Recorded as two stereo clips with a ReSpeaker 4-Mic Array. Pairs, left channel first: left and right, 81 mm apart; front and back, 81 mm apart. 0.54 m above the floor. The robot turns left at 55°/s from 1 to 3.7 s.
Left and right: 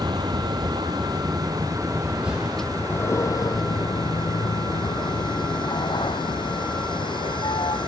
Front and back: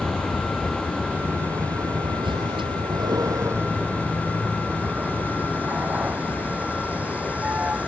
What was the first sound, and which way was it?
A vehicle, 95° right.